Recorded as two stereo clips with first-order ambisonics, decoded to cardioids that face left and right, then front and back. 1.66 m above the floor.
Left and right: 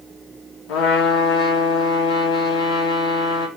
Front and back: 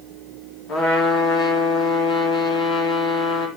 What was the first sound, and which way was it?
A trumpet, 60° left.